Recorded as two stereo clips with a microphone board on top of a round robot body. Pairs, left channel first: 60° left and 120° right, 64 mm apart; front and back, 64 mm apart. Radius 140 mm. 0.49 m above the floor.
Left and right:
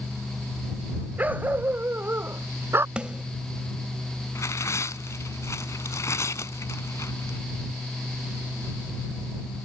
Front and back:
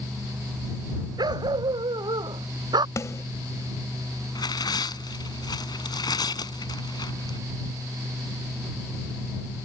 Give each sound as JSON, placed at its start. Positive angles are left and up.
{"t": 1.2, "sound": "a dog barking", "azimuth_deg": 175}
{"t": 3.0, "sound": "a snare drum", "azimuth_deg": -45}
{"t": 4.3, "sound": "tearing paper", "azimuth_deg": 10}